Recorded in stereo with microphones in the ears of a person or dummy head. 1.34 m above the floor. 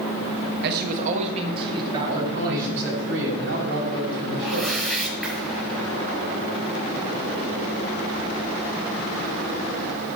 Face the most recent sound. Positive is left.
turn(degrees=-5)  # may be behind; listen again after turning